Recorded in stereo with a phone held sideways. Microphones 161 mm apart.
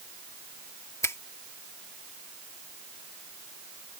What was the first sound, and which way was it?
A finger snap, 15° left (ahead or behind).